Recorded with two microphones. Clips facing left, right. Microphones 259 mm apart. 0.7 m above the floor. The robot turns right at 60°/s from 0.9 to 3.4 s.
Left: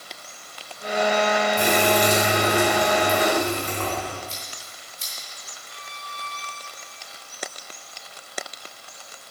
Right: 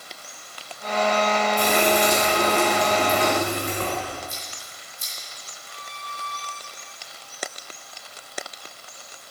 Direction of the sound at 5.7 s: 20° left (ahead or behind).